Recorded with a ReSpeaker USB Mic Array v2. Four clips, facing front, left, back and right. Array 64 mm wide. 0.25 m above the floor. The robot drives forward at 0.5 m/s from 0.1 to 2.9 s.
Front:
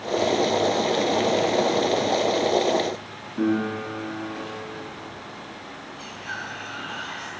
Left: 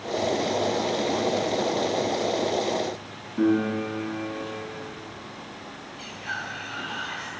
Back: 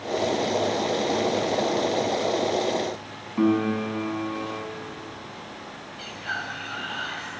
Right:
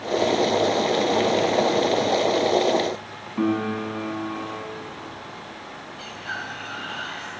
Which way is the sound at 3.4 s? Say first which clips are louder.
Left 1 dB, back 2 dB; 140° right.